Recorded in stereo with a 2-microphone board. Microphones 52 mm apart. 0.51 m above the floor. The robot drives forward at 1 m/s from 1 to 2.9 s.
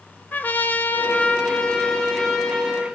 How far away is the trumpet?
About 0.7 m.